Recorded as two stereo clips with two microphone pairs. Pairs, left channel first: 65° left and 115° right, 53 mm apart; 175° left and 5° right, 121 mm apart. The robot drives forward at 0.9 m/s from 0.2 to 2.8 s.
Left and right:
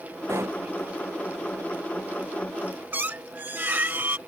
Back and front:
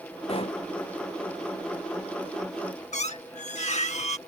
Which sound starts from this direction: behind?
A squeak, at 2.9 s.